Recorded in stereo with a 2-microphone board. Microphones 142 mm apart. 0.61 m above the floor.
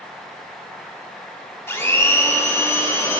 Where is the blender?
15° left (ahead or behind), 1.1 m.